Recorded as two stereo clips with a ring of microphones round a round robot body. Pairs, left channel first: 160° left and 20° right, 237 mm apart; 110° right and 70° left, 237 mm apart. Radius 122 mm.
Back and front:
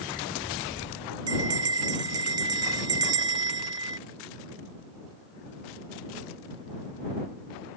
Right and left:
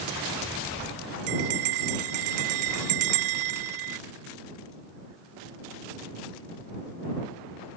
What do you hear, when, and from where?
1.3 s a bell: 50° left